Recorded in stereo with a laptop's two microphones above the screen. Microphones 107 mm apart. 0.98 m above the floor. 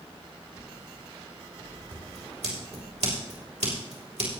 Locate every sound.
1.9 s scissors: 80° right, 3 m